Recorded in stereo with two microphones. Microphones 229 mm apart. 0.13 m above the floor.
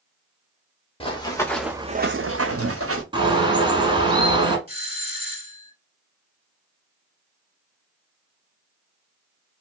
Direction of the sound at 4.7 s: 25° right (ahead or behind).